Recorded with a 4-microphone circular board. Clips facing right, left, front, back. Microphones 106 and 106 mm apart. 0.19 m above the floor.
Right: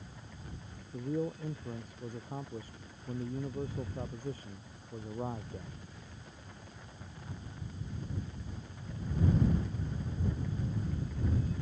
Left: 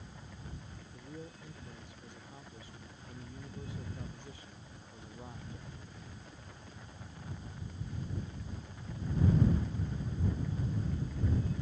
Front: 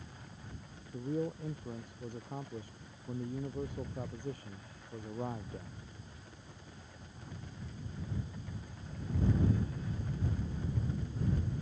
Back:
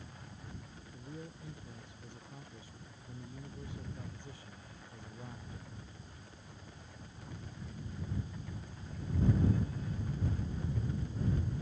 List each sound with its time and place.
0.9 s a man speaking: 40° right